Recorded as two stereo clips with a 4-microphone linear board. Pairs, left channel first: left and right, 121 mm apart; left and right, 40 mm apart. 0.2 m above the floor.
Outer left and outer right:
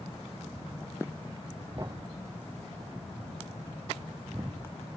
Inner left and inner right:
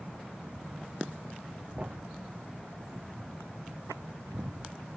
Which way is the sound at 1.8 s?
30° right (ahead or behind).